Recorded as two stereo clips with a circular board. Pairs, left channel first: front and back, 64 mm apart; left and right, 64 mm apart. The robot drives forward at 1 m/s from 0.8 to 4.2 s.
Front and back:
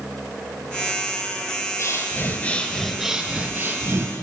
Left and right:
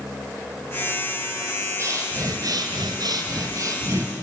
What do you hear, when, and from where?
1.8 s breathing: 45° right, 1.5 m; by 4.1 s 140° right, 1.6 m